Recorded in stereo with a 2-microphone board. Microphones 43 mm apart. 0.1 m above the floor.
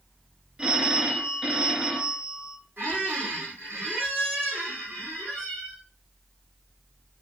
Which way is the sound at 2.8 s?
55° right (ahead or behind).